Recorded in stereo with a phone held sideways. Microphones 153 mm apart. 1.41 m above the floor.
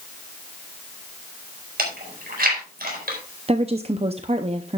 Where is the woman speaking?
40° right (ahead or behind), 0.6 m.